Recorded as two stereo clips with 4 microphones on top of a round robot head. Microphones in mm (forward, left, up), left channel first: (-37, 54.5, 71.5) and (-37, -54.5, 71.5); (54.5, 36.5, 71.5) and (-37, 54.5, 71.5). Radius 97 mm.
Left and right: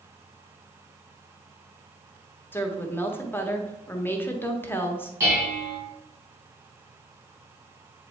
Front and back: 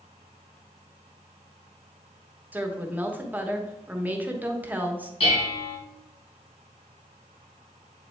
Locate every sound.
2.5 s a woman speaking: 125° left, 1.1 m
5.2 s dishes clattering: 25° right, 3.5 m